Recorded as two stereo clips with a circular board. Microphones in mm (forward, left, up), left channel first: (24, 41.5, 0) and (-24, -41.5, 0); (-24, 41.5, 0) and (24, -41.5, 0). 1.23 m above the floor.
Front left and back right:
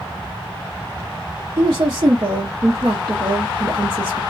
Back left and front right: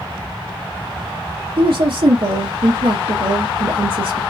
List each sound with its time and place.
1.6 s a woman speaking: 70° right, 1.0 m